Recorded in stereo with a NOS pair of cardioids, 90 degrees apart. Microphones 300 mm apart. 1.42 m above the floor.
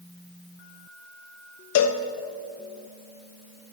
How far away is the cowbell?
About 0.7 m.